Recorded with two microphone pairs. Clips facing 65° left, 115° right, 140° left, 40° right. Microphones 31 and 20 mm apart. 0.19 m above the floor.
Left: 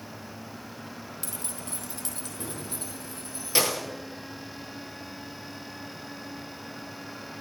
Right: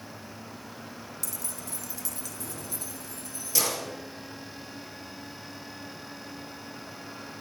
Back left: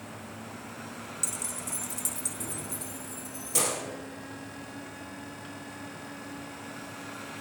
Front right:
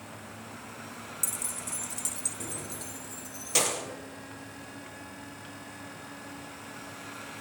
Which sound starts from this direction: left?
Keys jangling, at 1.2 s.